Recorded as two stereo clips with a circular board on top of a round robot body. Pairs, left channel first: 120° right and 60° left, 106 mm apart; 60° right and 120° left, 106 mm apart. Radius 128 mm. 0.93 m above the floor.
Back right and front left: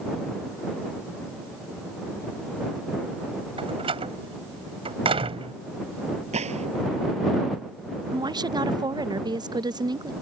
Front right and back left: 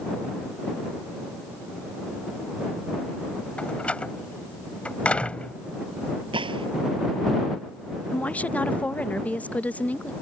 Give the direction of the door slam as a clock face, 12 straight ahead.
11 o'clock.